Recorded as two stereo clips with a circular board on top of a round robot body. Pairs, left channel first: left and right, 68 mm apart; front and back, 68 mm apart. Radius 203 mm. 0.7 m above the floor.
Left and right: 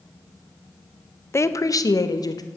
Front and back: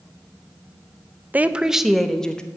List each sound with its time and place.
1.3 s a woman speaking: 125° left, 1.0 m; by 2.4 s 75° left, 1.6 m